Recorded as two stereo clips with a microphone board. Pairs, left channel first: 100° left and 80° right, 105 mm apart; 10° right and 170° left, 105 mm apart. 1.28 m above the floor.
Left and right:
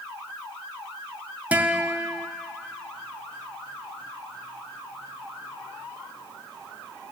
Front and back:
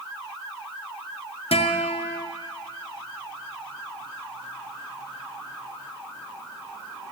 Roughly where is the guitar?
Ahead.